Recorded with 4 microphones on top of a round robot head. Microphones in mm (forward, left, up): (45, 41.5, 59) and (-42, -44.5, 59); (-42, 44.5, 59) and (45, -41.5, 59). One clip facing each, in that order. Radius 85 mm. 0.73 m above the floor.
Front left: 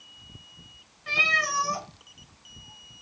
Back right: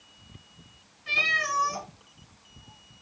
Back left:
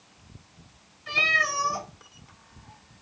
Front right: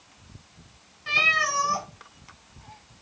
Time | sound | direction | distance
1.1 | a cat meowing | 5° right | 1.4 m